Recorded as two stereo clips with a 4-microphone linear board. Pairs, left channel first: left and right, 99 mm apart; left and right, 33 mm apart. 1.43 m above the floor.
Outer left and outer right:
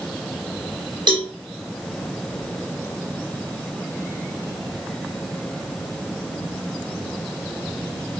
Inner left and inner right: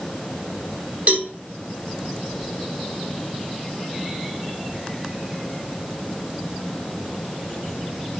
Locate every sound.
1.1 s a cowbell: 50° right (ahead or behind), 4.5 m